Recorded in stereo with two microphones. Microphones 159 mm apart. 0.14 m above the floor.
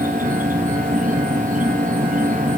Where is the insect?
60° right (ahead or behind), 1.2 m.